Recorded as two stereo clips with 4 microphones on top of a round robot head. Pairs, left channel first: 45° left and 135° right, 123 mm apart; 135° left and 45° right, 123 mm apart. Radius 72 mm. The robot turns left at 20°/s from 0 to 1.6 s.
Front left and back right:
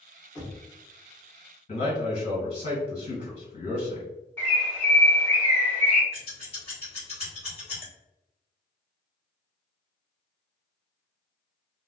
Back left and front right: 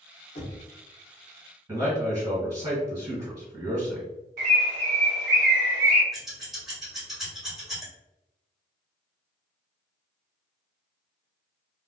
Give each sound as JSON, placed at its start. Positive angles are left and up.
{"t": 0.3, "sound": "knocking", "azimuth_deg": 110, "distance_m": 0.7}
{"t": 1.7, "sound": "a man speaking", "azimuth_deg": 20, "distance_m": 1.8}
{"t": 4.4, "sound": "a bird", "azimuth_deg": -30, "distance_m": 0.9}
{"t": 6.1, "sound": "scissors", "azimuth_deg": 40, "distance_m": 1.5}